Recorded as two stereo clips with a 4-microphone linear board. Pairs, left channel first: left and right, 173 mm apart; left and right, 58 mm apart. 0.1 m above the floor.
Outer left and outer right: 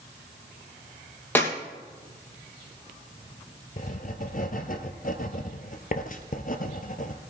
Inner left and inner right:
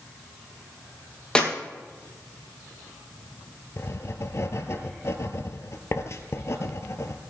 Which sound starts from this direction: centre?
A clap, at 1.4 s.